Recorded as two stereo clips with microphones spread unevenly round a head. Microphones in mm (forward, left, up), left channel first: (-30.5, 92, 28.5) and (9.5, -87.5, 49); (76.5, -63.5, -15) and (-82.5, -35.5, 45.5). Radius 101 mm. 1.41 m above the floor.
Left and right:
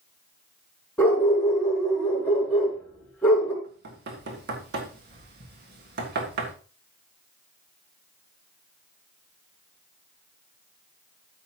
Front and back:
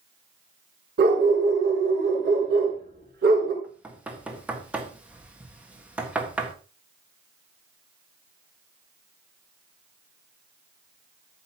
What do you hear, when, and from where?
1.0 s a dog barking: 175° right, 5.5 m
3.6 s knocking: 110° right, 1.6 m